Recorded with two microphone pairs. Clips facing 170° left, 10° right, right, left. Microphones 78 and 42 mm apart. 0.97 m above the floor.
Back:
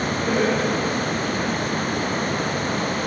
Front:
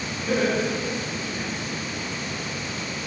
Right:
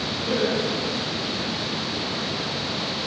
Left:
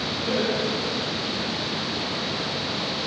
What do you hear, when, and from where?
0.3 s laughter: 170° left, 5 m; by 1.5 s 170° right, 5.5 m